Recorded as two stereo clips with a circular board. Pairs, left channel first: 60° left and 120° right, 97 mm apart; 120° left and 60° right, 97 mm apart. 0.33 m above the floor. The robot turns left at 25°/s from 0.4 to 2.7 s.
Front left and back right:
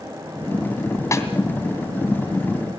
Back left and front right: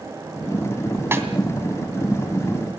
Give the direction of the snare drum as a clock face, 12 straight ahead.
12 o'clock.